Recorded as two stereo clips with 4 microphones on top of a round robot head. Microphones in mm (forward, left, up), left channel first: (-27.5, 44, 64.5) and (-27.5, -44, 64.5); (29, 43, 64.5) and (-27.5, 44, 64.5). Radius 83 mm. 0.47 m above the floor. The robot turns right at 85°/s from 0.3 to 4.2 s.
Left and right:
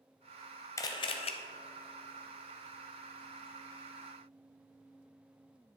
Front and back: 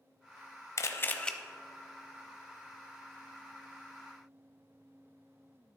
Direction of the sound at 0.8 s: 30° left.